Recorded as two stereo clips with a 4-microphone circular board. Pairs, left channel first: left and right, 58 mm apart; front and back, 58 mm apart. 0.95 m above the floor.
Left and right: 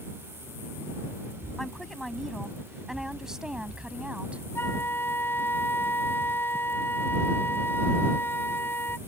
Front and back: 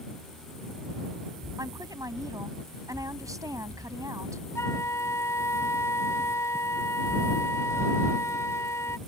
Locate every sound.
1.6 s a woman speaking: 175° left; by 4.4 s 160° right
4.5 s a flute: 40° left